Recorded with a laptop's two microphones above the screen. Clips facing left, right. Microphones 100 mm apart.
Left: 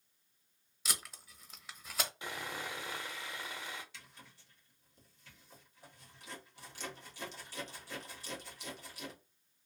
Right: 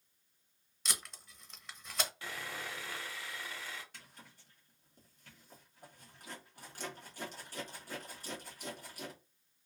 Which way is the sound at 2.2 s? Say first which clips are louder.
Left 2 dB; 15° left (ahead or behind).